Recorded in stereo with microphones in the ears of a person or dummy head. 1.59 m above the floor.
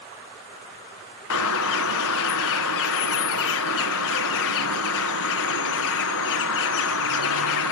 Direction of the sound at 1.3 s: 85° left.